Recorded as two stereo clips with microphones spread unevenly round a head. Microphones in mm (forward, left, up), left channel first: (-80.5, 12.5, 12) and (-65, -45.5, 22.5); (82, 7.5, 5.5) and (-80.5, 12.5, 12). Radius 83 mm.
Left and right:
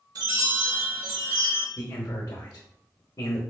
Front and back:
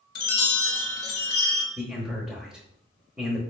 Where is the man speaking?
95° left, 0.8 m.